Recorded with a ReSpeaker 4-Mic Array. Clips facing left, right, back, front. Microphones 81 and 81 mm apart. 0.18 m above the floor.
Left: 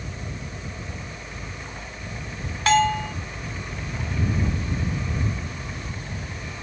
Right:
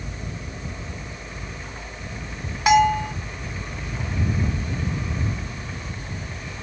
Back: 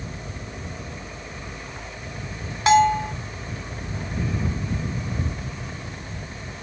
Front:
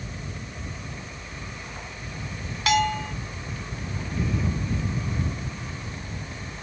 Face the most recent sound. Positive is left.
turn(degrees=-155)